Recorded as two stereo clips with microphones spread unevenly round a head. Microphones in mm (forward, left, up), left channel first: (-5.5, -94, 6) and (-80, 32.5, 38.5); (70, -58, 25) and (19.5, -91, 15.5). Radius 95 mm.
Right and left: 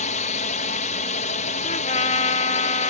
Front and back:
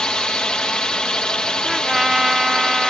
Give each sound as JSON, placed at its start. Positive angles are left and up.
{"t": 0.0, "sound": "a drone", "azimuth_deg": -45}
{"t": 1.6, "sound": "a trumpet", "azimuth_deg": -45}